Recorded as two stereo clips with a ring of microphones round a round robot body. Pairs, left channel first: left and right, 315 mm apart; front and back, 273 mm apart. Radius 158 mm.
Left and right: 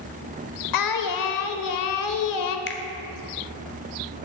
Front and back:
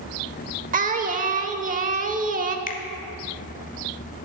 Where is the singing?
120° left, 0.8 m.